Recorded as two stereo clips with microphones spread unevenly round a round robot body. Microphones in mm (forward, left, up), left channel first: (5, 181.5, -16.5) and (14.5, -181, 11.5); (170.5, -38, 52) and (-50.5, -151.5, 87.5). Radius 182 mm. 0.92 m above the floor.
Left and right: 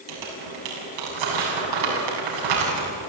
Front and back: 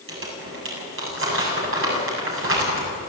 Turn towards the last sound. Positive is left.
turn(degrees=-115)